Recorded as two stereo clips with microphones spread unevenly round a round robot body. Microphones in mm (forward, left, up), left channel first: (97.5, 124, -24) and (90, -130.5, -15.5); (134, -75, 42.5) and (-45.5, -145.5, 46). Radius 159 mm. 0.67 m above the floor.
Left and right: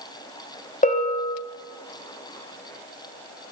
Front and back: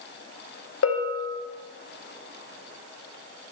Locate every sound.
0.8 s a bell: 25° left, 2 m